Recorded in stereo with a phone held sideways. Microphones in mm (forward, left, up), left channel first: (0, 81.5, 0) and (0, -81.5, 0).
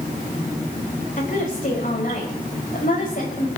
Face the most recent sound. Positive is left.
turn(degrees=55)  # may be behind; listen again after turning